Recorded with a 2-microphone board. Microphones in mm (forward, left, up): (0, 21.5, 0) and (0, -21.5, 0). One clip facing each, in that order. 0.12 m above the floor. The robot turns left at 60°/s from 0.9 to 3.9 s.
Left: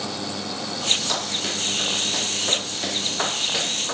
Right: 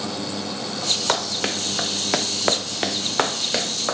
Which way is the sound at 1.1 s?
55° right (ahead or behind).